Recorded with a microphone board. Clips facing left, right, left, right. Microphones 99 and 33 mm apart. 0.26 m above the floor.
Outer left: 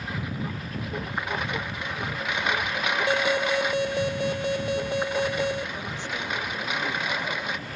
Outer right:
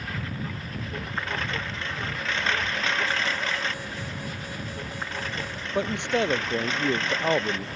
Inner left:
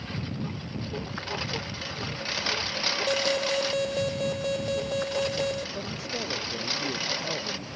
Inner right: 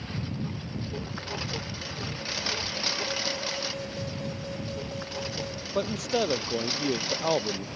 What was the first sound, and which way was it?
A lawn mower, 15° left (ahead or behind).